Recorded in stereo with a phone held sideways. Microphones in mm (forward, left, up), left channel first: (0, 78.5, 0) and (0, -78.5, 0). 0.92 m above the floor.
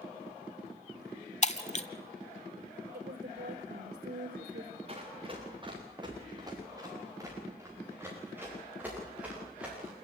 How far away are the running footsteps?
About 6.5 m.